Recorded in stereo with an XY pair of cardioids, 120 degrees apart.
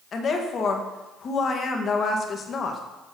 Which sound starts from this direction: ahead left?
A woman speaking, at 0.1 s.